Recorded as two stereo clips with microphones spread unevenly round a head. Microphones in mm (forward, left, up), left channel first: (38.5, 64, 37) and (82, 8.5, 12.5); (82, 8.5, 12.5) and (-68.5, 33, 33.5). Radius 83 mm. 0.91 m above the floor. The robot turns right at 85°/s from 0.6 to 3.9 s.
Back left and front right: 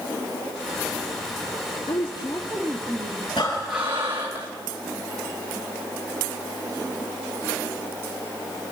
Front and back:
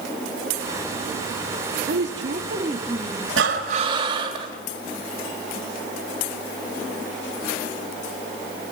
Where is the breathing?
170° right, 2.5 m; by 4.5 s 125° right, 2.5 m.